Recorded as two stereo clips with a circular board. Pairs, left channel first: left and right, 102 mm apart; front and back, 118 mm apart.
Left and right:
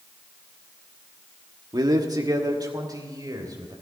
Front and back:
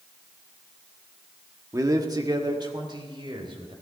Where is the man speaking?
125° right, 1.4 m; by 3.7 s 140° right, 4 m.